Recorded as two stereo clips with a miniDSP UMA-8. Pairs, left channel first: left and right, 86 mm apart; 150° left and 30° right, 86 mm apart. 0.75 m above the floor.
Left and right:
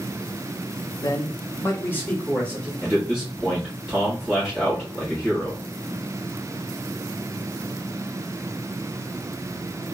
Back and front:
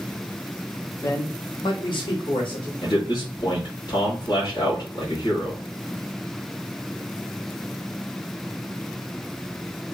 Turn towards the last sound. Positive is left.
turn(degrees=-175)